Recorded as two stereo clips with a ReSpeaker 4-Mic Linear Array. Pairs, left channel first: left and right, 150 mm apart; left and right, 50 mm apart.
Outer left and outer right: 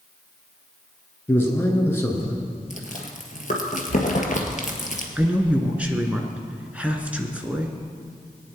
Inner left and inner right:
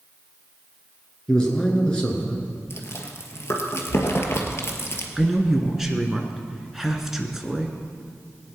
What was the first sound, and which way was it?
A man speaking, 15° left (ahead or behind).